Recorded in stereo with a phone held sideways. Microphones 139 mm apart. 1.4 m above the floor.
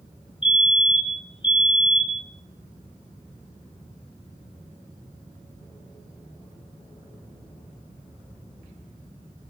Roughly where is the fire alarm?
Left.